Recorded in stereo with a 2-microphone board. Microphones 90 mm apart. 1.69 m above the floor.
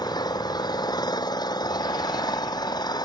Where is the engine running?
50° left (ahead or behind).